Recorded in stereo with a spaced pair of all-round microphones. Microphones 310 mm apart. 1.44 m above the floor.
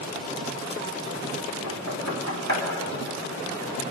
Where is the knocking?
75° right (ahead or behind), 2.5 m.